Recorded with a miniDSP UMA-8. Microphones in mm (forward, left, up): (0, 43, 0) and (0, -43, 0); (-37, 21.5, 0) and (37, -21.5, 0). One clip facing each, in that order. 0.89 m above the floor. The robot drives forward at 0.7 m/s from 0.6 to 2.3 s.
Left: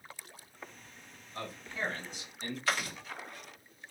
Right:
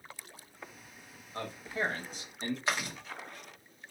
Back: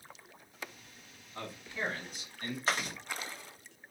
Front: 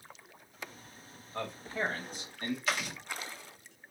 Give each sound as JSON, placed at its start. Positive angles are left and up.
{"t": 1.3, "sound": "a man speaking", "azimuth_deg": -45, "distance_m": 1.6}
{"t": 2.7, "sound": "chewing", "azimuth_deg": -155, "distance_m": 1.7}